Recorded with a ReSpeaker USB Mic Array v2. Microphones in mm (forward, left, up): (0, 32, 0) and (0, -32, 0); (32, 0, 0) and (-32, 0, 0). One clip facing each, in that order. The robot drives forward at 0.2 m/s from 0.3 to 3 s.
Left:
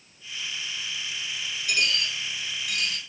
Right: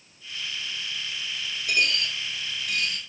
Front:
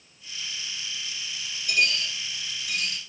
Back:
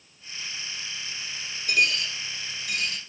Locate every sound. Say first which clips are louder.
1.7 s a dropped coin: right 2 dB, back 1 dB; 140° right, 1.5 m; by 3.0 s 145° right, 1.7 m